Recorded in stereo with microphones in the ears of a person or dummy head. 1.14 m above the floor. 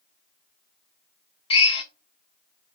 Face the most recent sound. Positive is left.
turn(degrees=30)  # may be behind; listen again after turning